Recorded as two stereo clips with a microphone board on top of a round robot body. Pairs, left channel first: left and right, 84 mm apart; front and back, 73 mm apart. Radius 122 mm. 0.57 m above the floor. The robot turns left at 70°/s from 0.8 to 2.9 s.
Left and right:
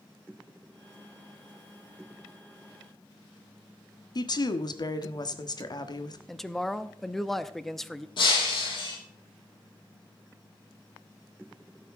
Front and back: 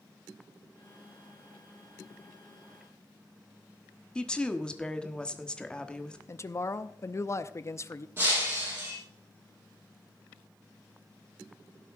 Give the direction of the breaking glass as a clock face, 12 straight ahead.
8 o'clock.